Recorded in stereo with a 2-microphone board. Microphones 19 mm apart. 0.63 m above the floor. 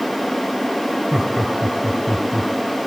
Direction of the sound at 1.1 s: 25° right (ahead or behind).